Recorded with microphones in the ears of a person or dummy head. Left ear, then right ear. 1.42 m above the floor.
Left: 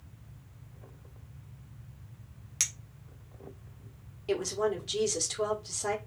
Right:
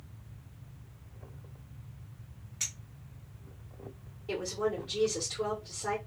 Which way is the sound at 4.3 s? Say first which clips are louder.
Left 3 dB; 75° left (ahead or behind).